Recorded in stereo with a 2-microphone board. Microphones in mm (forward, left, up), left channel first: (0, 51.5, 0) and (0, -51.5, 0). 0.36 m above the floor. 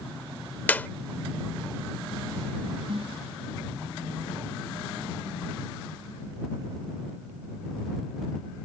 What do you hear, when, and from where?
0.7 s a clap: 15° left (ahead or behind)
2.9 s a snare drum: 60° right (ahead or behind)